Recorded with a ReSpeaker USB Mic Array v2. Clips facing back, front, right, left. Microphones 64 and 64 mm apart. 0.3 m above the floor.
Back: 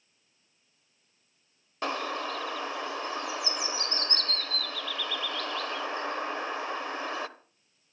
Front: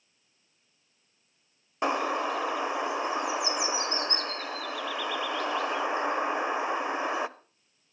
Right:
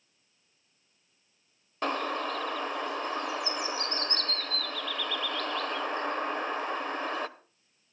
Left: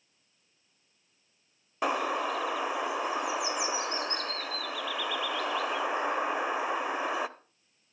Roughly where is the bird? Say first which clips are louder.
Front 4 dB, left 2 dB; ahead left.